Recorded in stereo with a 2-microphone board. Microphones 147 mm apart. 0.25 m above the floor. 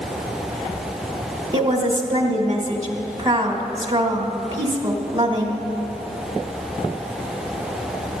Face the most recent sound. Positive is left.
turn(degrees=-25)  # may be behind; listen again after turning